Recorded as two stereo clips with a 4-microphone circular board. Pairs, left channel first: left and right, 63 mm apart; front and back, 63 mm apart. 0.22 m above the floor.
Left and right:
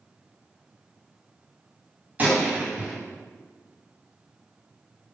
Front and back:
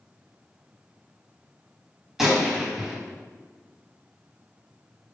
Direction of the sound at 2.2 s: 105° right.